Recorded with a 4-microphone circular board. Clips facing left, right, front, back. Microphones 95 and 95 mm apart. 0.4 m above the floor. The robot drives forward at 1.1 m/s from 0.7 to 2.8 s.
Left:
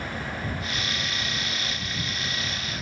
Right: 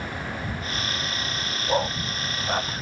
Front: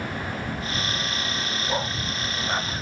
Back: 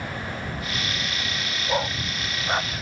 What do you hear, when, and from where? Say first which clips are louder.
1.7 s a dog barking: right 9 dB, back 4 dB; 100° right; by 2.7 s 105° right